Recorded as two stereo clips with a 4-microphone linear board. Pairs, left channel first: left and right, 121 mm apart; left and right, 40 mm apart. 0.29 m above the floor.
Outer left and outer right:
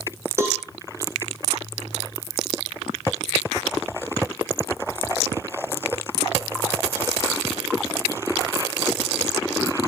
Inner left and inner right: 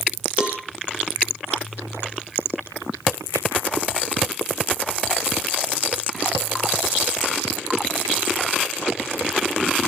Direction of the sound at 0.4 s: 25° right (ahead or behind).